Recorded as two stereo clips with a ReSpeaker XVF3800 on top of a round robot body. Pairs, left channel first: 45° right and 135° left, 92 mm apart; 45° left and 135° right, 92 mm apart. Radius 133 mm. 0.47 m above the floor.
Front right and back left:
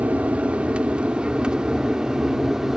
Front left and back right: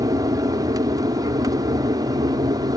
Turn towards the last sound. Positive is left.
turn(degrees=-140)